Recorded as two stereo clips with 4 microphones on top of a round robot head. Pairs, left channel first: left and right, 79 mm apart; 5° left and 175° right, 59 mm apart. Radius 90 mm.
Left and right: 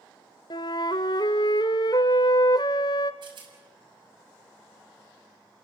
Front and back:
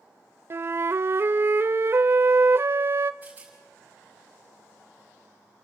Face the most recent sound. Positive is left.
turn(degrees=-110)